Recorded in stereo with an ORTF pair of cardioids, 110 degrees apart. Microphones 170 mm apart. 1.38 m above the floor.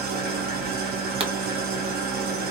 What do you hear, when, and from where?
0.0 s an engine running: 70° right, 1.1 m
1.2 s a pop: 35° right, 0.9 m